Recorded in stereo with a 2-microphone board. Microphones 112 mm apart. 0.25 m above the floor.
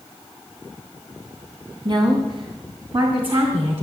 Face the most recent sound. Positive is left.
turn(degrees=-55)  # may be behind; listen again after turning